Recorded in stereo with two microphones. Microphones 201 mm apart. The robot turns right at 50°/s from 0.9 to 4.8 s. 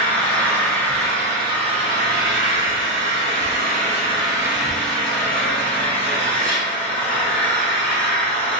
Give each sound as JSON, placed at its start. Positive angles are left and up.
{"t": 0.0, "sound": "an engine running", "azimuth_deg": 170, "distance_m": 0.8}